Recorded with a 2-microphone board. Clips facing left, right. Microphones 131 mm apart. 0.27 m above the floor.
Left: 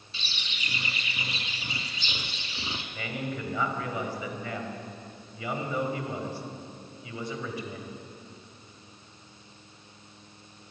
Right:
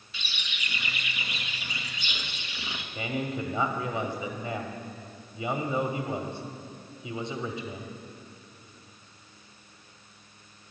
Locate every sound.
0.1 s a bird: 35° left (ahead or behind), 0.8 m
3.0 s a man speaking: 25° right (ahead or behind), 1.0 m